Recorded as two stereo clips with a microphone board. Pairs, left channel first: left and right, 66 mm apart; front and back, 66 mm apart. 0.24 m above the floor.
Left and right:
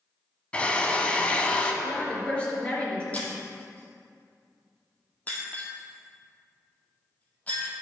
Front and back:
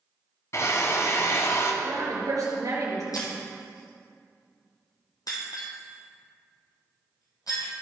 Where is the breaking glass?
25° left, 2.5 m.